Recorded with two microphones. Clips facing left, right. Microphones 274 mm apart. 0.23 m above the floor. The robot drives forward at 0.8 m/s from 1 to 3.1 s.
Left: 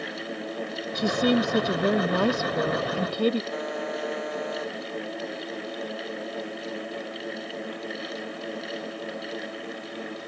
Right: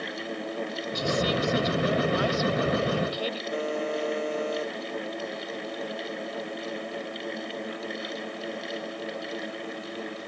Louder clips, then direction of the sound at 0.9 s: Left 5 dB; 65° left (ahead or behind).